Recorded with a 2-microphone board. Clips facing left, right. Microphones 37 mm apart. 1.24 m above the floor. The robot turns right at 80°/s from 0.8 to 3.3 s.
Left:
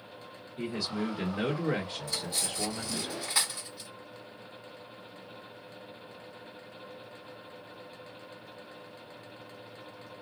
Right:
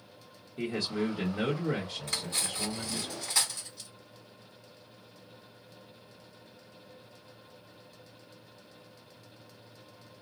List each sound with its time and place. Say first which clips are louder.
0.6 s a man speaking: right 2 dB; 50° right, 1.2 m; by 3.1 s 130° left, 1.2 m
2.1 s cutlery clinking: even; 55° right (ahead or behind), 1.1 m; by 3.9 s 20° left (ahead or behind), 1.1 m